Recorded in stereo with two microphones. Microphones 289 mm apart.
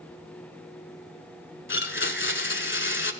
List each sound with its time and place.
1.7 s a blender: 40° left (ahead or behind), 0.9 m